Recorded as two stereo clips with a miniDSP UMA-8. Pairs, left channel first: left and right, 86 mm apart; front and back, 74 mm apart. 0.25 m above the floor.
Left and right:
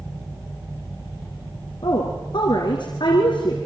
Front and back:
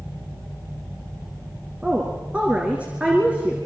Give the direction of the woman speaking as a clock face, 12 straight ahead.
8 o'clock.